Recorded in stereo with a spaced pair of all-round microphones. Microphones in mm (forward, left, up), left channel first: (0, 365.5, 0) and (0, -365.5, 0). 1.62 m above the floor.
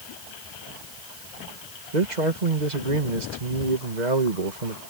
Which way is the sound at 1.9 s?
65° right (ahead or behind).